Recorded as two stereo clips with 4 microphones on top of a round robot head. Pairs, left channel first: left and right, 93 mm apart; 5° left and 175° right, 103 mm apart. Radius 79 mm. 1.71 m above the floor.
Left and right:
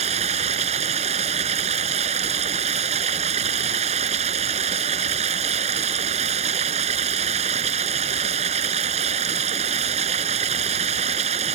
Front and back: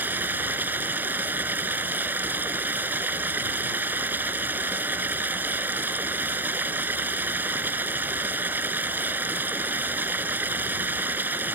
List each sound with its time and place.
0.0 s running water: 100° right